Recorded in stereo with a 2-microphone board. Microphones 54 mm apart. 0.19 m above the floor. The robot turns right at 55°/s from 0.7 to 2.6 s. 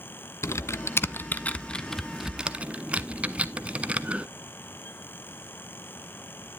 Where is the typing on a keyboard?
55° left (ahead or behind), 0.6 m; by 4.3 s 25° right (ahead or behind), 0.6 m.